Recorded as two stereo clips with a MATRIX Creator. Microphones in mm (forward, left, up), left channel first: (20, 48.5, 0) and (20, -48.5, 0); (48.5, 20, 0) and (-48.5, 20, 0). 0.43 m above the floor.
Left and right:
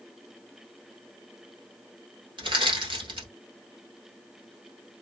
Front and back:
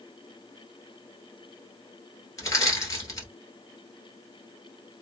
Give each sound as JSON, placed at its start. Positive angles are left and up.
{"t": 2.4, "sound": "crushing", "azimuth_deg": -55, "distance_m": 1.6}